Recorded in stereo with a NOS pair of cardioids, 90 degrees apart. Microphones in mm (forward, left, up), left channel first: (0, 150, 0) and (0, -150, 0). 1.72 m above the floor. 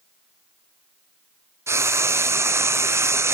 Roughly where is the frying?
Ahead.